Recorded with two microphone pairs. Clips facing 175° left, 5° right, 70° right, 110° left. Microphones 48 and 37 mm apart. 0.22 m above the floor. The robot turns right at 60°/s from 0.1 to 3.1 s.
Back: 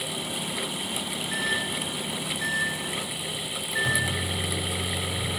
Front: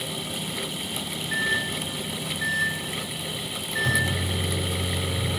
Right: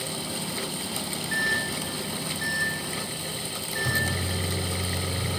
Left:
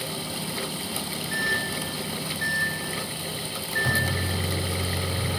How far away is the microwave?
About 0.8 m.